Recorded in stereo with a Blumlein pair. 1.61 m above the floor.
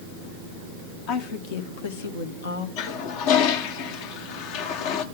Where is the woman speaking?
45° left, 1.7 m; by 2.7 s 70° left, 2 m.